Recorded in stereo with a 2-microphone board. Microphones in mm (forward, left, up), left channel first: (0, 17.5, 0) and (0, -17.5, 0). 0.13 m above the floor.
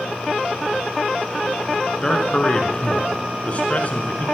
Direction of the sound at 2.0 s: 20° left (ahead or behind).